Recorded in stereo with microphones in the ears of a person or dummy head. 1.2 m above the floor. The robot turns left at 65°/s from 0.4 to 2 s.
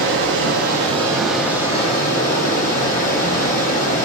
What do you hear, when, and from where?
0.0 s running water: 115° right, 0.9 m; by 4.1 s 140° left, 0.9 m